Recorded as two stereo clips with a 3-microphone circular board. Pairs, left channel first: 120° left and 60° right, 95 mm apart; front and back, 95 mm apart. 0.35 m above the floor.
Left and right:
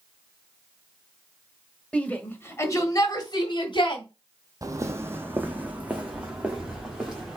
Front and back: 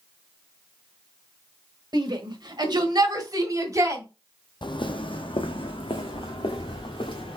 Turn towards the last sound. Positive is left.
turn(degrees=25)